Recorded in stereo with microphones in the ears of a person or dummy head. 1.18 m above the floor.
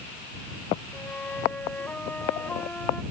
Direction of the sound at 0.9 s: 10° left (ahead or behind).